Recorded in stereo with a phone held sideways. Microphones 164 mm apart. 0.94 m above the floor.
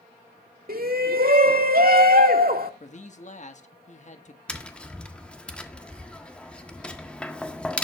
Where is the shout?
65° right (ahead or behind), 2 m.